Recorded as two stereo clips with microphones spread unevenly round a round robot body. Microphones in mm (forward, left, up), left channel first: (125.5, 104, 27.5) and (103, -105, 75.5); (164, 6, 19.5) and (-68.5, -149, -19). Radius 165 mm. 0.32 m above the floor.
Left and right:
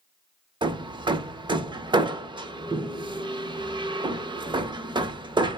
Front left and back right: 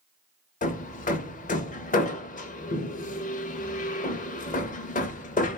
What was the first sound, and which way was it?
Hammering, 20° right.